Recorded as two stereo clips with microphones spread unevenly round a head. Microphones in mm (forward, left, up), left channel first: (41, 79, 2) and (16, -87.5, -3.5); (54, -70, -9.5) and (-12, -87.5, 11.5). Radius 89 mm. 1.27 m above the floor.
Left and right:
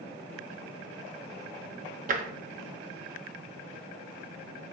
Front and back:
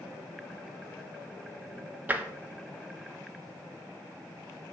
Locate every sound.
2.1 s tapping: 130° right, 0.9 m